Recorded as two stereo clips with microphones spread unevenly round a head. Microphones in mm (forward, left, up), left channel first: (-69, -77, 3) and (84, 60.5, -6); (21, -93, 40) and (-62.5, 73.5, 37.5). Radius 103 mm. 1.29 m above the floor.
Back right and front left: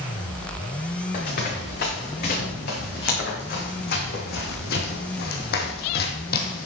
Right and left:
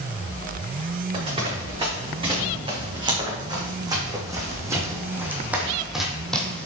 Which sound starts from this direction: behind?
Running footsteps, at 1.1 s.